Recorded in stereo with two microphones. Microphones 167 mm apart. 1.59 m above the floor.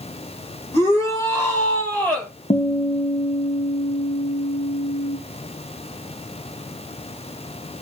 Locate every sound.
0.7 s a shout: 15° left (ahead or behind), 5 m; by 2.3 s 10° left (ahead or behind), 5 m
2.5 s a guitar: 45° left (ahead or behind), 1.0 m